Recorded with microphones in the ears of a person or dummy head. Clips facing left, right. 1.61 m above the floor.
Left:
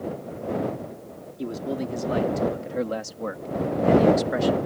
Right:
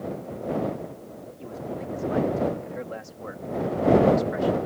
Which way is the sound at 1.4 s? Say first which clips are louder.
Left 6 dB; 60° left (ahead or behind).